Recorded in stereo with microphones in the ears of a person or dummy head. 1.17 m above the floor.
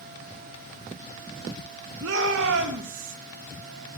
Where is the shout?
70° right (ahead or behind), 1.3 m.